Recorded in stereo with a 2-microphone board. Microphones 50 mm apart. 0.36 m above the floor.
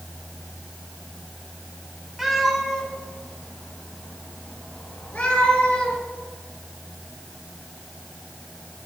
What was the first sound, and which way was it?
A cat meowing, 10° right (ahead or behind).